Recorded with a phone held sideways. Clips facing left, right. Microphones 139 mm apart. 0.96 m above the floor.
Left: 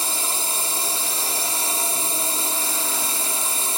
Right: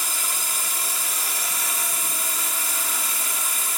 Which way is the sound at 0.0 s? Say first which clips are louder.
Left 4 dB; 30° left (ahead or behind).